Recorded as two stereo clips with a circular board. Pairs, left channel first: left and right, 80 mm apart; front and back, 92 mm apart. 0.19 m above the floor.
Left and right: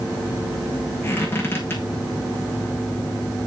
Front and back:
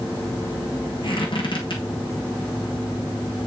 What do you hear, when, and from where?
1.0 s a squeak: 30° left, 5 m